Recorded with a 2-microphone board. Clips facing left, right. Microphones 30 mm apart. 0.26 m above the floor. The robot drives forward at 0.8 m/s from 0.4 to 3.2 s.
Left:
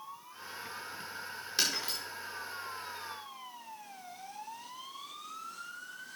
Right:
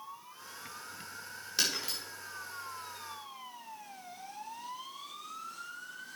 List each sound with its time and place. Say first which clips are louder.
1.6 s breaking glass: even; centre (ahead or behind), 4 m